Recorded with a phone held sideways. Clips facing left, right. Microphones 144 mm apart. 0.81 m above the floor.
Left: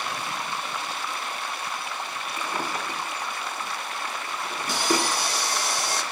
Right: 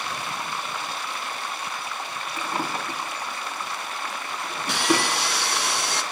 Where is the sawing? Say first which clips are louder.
Right 2 dB; 75° right (ahead or behind), 2.5 m.